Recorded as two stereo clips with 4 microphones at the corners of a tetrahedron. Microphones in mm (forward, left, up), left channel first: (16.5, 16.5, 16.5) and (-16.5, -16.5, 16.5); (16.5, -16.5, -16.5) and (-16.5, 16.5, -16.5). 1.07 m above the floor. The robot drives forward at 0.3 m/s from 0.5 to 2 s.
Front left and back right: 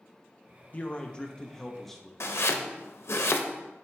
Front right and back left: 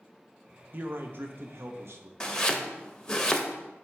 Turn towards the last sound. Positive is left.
turn(degrees=30)